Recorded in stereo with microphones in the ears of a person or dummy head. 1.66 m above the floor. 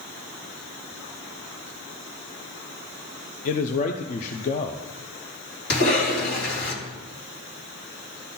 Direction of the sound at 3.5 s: 40° left (ahead or behind).